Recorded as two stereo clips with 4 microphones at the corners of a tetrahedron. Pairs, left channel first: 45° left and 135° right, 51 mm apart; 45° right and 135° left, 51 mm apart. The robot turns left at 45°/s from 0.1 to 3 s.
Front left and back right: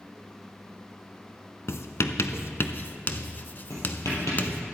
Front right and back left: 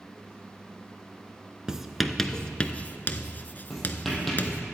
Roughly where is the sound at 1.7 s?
Ahead left.